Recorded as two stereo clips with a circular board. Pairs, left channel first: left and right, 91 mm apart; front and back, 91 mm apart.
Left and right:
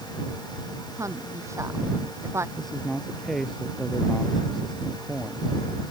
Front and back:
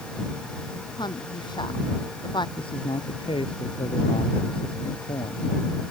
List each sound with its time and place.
1.0 s a woman speaking: 35° right; by 2.5 s 30° right
2.6 s a man speaking: 5° left